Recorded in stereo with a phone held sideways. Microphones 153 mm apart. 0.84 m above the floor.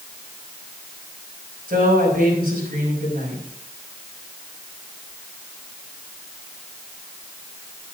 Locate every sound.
1.7 s a woman speaking: 80° right, 5 m